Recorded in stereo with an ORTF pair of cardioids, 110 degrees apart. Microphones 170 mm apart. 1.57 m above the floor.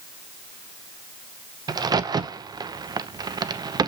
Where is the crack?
20° right, 0.6 m.